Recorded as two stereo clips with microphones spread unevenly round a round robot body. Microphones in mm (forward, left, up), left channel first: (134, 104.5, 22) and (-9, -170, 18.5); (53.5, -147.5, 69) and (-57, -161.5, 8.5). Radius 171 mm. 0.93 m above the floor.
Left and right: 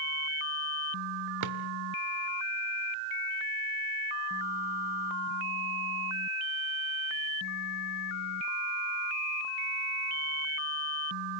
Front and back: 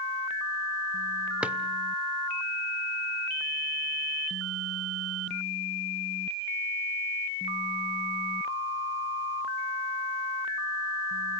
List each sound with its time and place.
1.4 s a drawer: 90° right, 1.6 m